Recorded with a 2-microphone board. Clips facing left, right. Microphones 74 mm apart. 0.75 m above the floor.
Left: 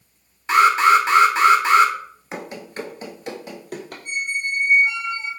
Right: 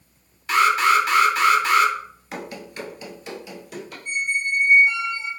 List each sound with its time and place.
0.5 s an alarm: 25° left (ahead or behind), 0.7 m
2.3 s running footsteps: 25° left (ahead or behind), 0.7 m; by 4.0 s 50° left (ahead or behind), 1.4 m
4.0 s a squeak: 55° left (ahead or behind), 1.7 m